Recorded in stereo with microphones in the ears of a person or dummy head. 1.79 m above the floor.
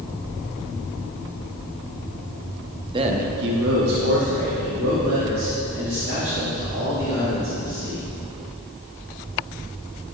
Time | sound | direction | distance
2.9 | a man speaking | 25° right (ahead or behind) | 0.8 m